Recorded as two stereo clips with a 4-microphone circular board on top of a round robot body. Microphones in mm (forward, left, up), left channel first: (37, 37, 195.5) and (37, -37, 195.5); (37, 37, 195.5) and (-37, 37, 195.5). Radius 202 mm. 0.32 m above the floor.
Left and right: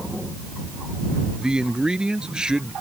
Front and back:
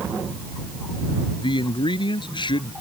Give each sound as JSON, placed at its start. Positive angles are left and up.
{"t": 1.4, "sound": "a man speaking", "azimuth_deg": -10}